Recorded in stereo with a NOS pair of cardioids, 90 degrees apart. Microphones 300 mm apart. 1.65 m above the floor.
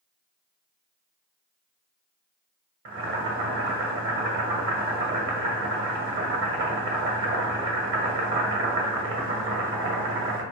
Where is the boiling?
40° right, 1.2 m.